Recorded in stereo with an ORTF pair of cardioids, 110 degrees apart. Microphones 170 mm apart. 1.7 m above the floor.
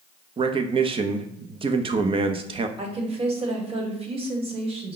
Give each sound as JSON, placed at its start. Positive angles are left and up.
{"t": 0.4, "sound": "a man speaking", "azimuth_deg": -30, "distance_m": 0.6}
{"t": 2.8, "sound": "a woman speaking", "azimuth_deg": -35, "distance_m": 1.3}